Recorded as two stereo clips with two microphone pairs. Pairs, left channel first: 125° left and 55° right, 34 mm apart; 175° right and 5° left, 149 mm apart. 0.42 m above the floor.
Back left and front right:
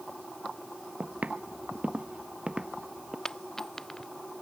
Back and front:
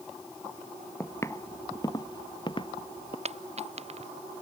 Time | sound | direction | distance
1.0 | footsteps | 100° right | ?
3.2 | a dropped coin | 50° left | ?